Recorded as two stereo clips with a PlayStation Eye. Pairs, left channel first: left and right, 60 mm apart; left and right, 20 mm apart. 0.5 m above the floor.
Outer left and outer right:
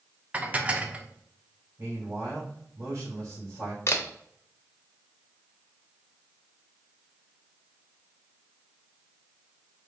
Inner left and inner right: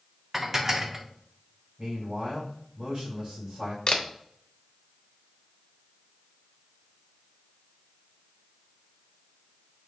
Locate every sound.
0.3 s dishes clattering: 25° right (ahead or behind), 0.6 m
1.8 s a man speaking: 50° right (ahead or behind), 2.5 m
3.9 s a camera shutter: 45° left (ahead or behind), 0.6 m